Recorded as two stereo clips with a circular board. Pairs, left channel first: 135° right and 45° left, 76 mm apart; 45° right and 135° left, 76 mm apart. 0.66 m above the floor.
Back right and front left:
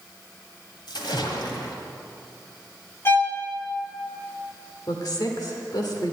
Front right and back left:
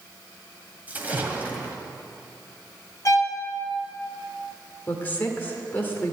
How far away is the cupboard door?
No cupboard door in this recording.